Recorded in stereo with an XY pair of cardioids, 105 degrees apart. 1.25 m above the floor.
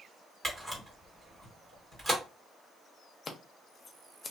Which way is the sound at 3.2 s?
35° left.